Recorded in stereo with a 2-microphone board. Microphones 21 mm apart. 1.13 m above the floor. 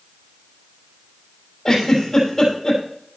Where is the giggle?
15° left (ahead or behind), 5.5 m.